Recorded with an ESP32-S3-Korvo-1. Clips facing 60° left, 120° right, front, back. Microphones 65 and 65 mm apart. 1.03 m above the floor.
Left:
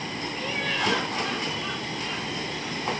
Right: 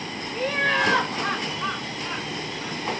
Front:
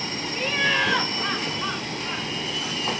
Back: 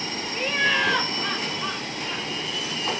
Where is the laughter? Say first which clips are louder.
Right 8 dB, even; 100° right, 1.0 m; by 2.8 s 65° right, 2 m.